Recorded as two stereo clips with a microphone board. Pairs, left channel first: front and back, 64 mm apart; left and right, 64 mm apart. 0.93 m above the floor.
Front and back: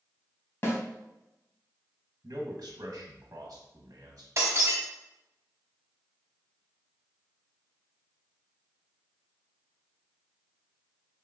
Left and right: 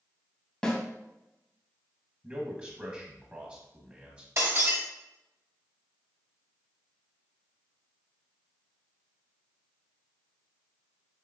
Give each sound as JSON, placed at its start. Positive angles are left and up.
{"t": 0.6, "sound": "a snare drum", "azimuth_deg": 15, "distance_m": 0.9}
{"t": 2.2, "sound": "a man speaking", "azimuth_deg": -155, "distance_m": 0.7}
{"t": 4.4, "sound": "breaking glass", "azimuth_deg": -135, "distance_m": 0.8}